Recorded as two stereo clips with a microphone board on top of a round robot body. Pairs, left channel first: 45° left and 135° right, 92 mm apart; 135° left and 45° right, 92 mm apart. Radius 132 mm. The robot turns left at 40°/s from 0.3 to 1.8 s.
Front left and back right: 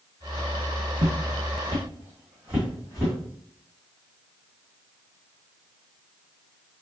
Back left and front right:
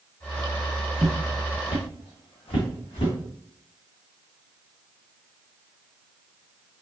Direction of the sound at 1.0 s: 140° right.